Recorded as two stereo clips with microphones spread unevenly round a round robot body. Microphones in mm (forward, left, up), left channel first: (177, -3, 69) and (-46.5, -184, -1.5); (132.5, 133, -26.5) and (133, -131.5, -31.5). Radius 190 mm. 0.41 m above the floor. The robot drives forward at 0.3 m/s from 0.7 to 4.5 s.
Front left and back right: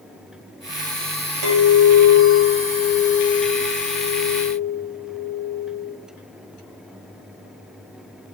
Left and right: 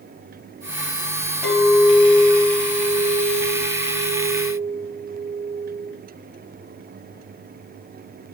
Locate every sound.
1.4 s a clink: 175° right, 1.4 m